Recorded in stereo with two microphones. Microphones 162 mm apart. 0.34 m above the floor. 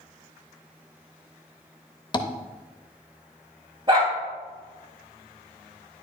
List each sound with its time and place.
2.1 s tapping: 30° left (ahead or behind), 0.6 m
3.9 s a dog barking: 30° right (ahead or behind), 3.5 m